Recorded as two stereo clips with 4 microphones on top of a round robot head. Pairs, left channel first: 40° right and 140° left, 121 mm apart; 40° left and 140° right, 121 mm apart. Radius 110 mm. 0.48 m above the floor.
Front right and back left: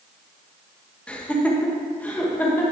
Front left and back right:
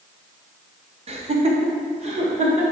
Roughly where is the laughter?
Behind right.